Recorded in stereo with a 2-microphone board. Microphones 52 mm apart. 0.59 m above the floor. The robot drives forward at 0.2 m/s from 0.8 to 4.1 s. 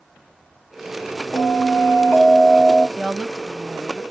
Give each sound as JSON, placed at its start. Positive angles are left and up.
{"t": 1.3, "sound": "a bell", "side_deg": 20, "distance_m": 1.3}
{"t": 3.0, "sound": "a woman speaking", "side_deg": 0, "distance_m": 0.6}